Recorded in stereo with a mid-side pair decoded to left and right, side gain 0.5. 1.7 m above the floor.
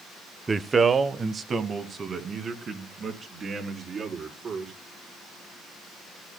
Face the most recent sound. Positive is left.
turn(degrees=-45)